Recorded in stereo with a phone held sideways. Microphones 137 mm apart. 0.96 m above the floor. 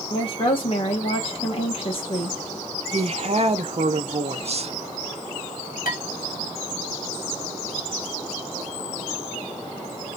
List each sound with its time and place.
0.1 s a woman speaking: 40° left (ahead or behind), 1.2 m
2.9 s a woman speaking: 50° right (ahead or behind), 0.5 m
5.8 s dishes clattering: 85° left, 1.4 m